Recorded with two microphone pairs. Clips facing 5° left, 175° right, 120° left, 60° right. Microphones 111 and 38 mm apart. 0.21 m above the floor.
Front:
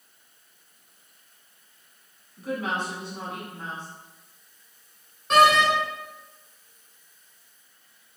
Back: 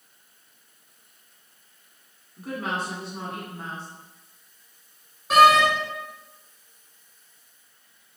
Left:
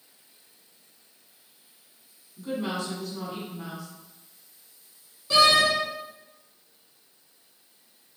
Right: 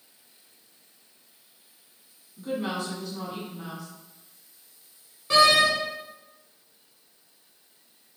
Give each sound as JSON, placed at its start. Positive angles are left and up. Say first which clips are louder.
{"t": 2.4, "sound": "a woman speaking", "louder": "front 1 dB, even", "azimuth_deg": -140, "distance_m": 1.7}
{"t": 5.3, "sound": "a door slam", "louder": "back 2 dB, right 1 dB", "azimuth_deg": -90, "distance_m": 1.3}